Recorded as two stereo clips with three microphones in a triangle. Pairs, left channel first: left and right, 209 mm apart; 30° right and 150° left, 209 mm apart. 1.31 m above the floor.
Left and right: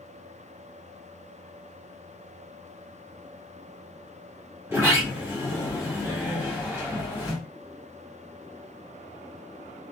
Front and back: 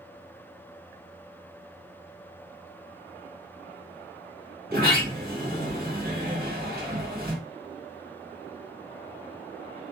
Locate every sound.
4.7 s a sliding door: 165° right, 1.1 m